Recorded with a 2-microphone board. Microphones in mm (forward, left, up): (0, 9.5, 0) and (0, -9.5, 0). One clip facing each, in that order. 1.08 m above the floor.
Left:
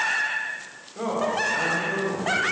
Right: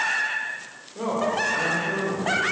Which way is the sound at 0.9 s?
15° right (ahead or behind).